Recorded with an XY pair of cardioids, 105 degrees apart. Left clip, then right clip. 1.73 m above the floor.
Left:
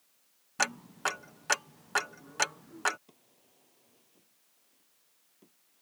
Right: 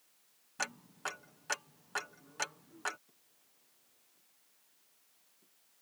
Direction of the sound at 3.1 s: 70° left.